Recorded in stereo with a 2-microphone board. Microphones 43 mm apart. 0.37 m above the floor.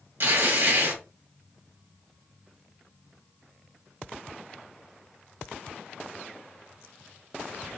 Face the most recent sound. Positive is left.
turn(degrees=-60)  # may be behind; listen again after turning